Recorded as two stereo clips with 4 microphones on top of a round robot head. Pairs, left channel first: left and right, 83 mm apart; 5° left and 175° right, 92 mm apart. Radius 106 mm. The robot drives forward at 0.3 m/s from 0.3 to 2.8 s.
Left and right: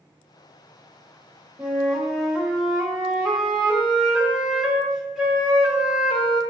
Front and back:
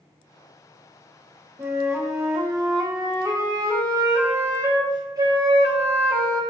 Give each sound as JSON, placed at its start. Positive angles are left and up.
{"t": 1.6, "sound": "a flute", "azimuth_deg": -160, "distance_m": 1.3}